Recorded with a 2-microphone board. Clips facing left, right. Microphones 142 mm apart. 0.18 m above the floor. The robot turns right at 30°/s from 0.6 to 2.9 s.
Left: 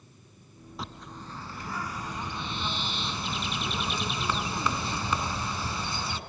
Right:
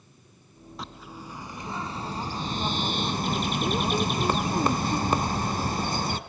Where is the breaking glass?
I don't hear breaking glass.